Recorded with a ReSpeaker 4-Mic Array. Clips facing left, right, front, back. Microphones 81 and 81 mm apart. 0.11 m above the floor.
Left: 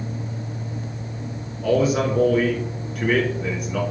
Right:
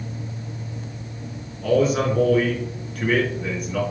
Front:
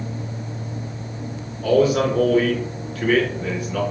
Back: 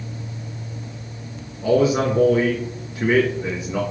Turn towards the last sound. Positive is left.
turn(degrees=165)